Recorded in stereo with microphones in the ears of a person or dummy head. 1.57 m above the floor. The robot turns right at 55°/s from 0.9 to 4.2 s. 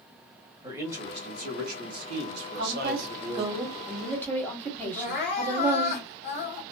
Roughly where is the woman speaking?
Right.